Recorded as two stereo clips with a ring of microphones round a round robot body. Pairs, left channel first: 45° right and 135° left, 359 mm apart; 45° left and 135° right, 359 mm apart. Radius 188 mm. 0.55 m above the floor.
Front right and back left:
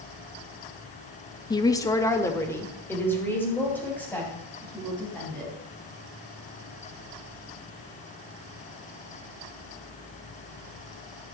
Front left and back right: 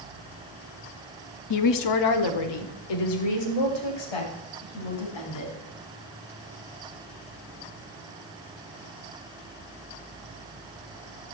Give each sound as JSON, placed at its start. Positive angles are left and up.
{"t": 1.5, "sound": "a woman speaking", "azimuth_deg": 30, "distance_m": 0.9}